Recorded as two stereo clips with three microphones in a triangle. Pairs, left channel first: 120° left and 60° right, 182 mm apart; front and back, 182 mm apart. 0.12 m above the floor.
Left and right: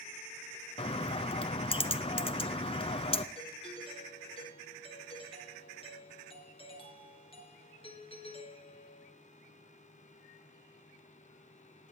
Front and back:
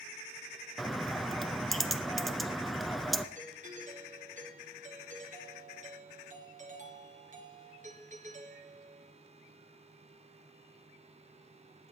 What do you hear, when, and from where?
0.8 s a bird: 90° left, 0.7 m
3.4 s a doorbell: 165° left, 3 m